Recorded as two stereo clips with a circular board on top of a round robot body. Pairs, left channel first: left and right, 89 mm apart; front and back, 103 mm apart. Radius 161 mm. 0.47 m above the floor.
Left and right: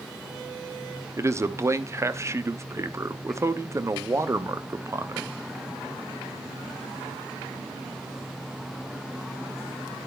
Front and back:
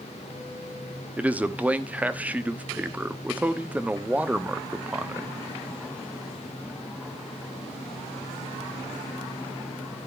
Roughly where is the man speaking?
Behind right.